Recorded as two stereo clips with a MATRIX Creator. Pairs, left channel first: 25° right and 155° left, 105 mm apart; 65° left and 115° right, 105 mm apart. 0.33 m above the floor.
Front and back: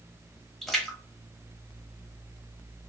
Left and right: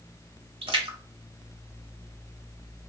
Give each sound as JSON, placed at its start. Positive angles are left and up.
{"t": 0.6, "sound": "a splash", "azimuth_deg": -110, "distance_m": 0.9}